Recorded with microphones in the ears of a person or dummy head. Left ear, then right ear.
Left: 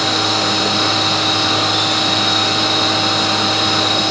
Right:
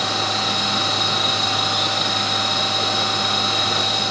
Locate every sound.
0.0 s a machine running: 30° right (ahead or behind), 5.5 m